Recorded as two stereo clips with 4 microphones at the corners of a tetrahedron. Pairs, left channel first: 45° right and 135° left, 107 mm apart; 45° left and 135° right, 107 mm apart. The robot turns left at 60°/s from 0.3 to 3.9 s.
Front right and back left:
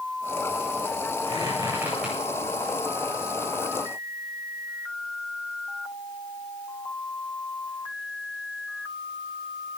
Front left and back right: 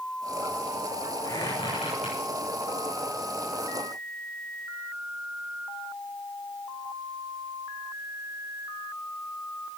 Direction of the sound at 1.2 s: 100° left.